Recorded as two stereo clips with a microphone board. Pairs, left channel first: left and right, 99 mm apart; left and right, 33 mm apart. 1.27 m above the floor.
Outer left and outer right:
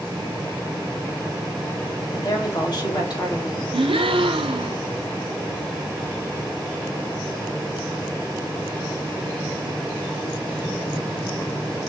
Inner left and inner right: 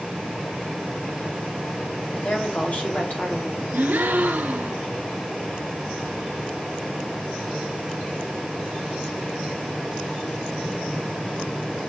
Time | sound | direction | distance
2.1 | a woman speaking | 50° left (ahead or behind) | 2.5 m
3.7 | a gasp | 80° right | 0.9 m